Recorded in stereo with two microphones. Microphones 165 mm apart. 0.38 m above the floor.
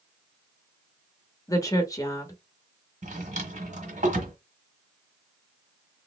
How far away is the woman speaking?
About 0.9 m.